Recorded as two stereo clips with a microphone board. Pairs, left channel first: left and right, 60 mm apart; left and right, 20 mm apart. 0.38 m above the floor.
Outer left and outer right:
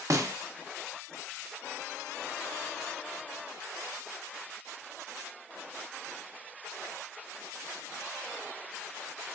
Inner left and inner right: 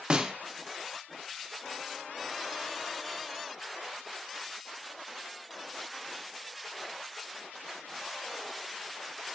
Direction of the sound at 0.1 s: 65° right (ahead or behind).